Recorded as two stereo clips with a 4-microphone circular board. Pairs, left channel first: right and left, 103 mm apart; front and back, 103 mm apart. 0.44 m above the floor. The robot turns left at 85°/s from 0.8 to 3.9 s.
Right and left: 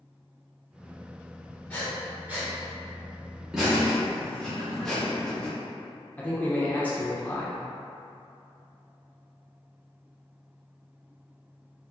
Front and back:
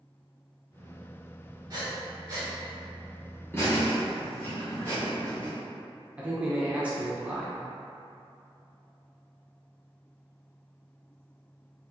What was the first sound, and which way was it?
Breathing, 155° right.